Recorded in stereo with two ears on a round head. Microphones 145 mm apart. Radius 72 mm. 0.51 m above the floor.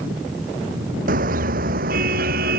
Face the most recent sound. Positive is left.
turn(degrees=-60)  # may be behind; listen again after turning